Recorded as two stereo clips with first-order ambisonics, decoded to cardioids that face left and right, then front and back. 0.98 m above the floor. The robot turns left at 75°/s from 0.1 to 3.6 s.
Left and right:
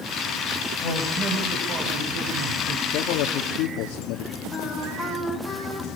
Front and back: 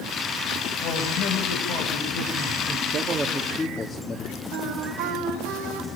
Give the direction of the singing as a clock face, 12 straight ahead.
6 o'clock.